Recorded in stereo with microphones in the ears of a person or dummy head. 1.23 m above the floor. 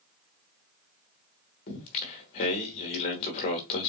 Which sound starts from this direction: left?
Singing, at 1.7 s.